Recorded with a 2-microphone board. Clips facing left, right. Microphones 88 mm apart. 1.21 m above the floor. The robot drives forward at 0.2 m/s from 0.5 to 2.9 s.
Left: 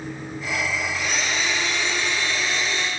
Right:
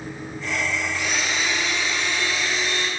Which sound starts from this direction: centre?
A blender, at 0.9 s.